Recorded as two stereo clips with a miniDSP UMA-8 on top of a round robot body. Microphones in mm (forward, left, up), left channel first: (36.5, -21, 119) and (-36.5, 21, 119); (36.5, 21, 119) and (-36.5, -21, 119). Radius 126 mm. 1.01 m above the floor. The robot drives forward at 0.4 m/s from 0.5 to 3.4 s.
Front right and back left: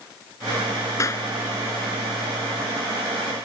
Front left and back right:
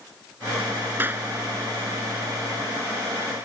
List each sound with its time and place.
1.0 s a clap: 85° right